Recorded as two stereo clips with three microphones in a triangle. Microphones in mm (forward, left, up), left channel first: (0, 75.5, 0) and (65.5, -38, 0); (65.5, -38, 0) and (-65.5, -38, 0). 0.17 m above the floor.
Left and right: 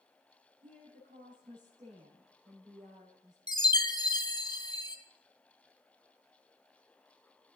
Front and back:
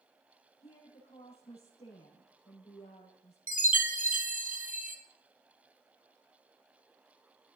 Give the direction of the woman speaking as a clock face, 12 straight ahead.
1 o'clock.